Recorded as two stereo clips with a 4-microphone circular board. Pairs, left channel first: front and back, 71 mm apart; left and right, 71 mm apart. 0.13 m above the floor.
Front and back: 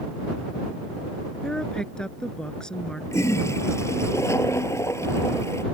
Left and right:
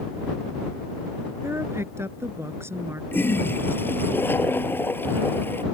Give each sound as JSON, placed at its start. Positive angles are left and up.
{"t": 1.4, "sound": "a woman speaking", "azimuth_deg": -75}
{"t": 3.1, "sound": "a toilet flushing", "azimuth_deg": 40}